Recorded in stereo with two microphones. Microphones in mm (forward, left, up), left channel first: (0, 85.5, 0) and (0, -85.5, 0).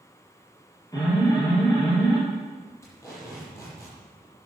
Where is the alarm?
20° left (ahead or behind), 7 m.